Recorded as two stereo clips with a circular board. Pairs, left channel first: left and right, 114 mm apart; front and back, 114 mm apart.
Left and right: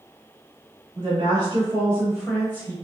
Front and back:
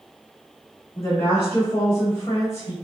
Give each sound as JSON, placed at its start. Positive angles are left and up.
{"t": 0.9, "sound": "a woman speaking", "azimuth_deg": -75, "distance_m": 1.5}